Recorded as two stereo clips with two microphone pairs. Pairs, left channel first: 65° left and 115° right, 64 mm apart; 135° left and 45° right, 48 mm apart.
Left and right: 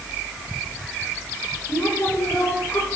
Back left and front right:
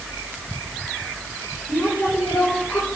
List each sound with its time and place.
1.7 s a woman speaking: 110° left, 5 m